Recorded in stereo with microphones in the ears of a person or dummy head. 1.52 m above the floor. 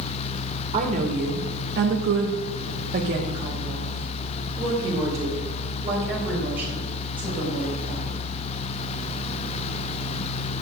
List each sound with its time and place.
0.7 s a woman speaking: 35° right (ahead or behind), 1.5 m; by 8.2 s 10° right (ahead or behind), 5 m